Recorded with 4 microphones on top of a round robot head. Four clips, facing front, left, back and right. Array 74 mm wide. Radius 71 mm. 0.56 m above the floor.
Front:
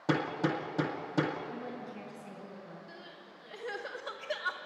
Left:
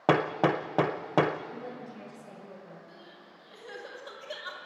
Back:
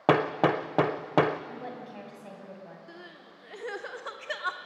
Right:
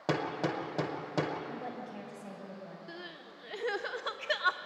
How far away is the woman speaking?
About 4.5 m.